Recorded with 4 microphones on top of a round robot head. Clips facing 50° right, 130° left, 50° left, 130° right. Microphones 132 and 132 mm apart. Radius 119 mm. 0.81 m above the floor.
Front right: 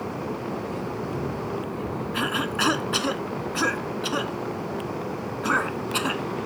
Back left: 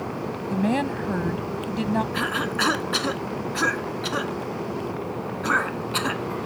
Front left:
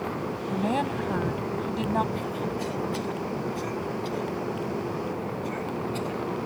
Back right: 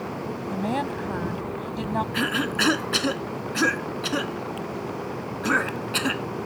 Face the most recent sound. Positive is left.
turn(degrees=-135)